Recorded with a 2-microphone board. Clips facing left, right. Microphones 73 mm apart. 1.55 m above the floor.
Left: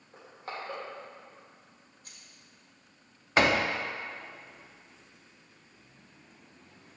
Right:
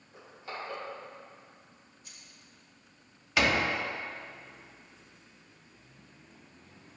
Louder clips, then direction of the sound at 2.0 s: Left 1 dB; 50° left (ahead or behind).